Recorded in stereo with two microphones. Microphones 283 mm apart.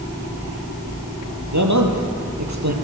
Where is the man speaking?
70° right (ahead or behind), 4 m; by 2.7 s 65° right (ahead or behind), 4 m.